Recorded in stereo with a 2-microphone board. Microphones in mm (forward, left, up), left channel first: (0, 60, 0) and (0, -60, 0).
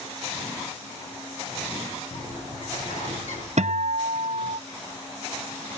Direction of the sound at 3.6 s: 70° right (ahead or behind).